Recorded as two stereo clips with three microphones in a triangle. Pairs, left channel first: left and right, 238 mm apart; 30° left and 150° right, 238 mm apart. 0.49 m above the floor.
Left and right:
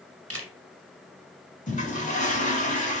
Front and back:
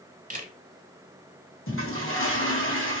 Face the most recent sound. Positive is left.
turn(degrees=40)